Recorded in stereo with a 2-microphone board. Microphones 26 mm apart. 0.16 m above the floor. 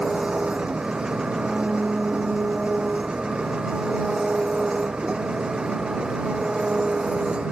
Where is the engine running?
40° right (ahead or behind).